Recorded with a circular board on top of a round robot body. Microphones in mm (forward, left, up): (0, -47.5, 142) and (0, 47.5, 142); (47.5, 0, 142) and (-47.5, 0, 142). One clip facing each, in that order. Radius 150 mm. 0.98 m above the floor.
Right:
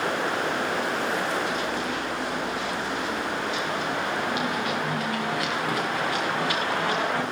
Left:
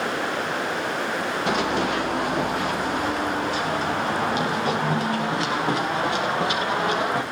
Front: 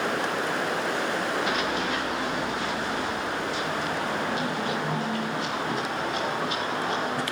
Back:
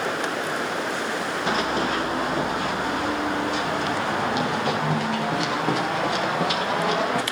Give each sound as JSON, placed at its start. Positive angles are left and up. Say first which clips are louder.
{"t": 1.5, "sound": "running footsteps", "louder": "left 5 dB, back 3 dB", "azimuth_deg": 120, "distance_m": 3.5}